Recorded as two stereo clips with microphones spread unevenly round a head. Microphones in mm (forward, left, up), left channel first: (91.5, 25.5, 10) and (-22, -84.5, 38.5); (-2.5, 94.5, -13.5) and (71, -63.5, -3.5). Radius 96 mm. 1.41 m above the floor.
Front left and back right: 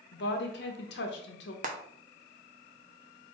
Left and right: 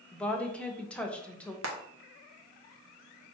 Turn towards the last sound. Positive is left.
turn(degrees=-95)